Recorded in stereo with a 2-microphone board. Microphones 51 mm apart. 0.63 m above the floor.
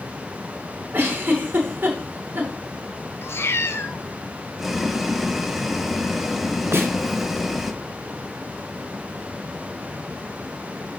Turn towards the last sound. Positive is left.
turn(degrees=-55)  # may be behind; listen again after turning